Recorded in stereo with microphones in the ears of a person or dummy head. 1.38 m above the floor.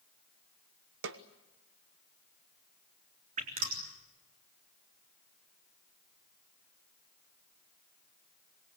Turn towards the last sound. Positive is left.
turn(degrees=-45)  # may be behind; listen again after turning